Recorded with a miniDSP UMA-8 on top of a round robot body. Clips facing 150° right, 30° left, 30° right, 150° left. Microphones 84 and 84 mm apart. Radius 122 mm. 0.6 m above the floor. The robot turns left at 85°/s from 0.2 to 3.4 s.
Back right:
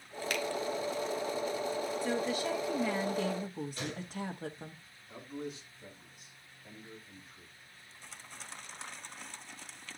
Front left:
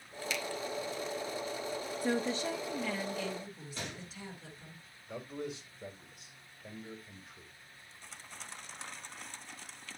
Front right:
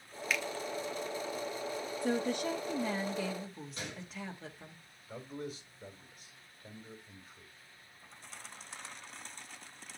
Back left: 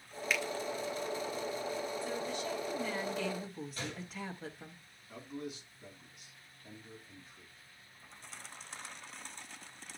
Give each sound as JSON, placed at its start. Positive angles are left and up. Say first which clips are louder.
{"t": 0.3, "sound": "a finger snap", "louder": "back right 3 dB, back left 1 dB", "azimuth_deg": -120, "distance_m": 1.4}
{"t": 2.0, "sound": "a woman speaking", "louder": "front left 3 dB, front right 5 dB", "azimuth_deg": -5, "distance_m": 1.2}
{"t": 3.8, "sound": "a gunshot", "louder": "back right 4 dB, even", "azimuth_deg": 40, "distance_m": 7.5}
{"t": 5.1, "sound": "a man speaking", "louder": "front left 1 dB, front right 1 dB", "azimuth_deg": 20, "distance_m": 3.5}